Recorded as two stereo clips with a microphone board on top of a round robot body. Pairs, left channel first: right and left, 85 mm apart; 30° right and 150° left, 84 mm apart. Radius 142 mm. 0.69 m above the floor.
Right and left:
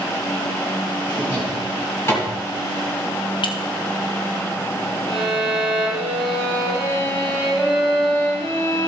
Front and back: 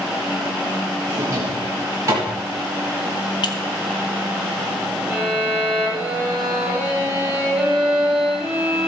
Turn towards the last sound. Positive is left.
turn(degrees=-130)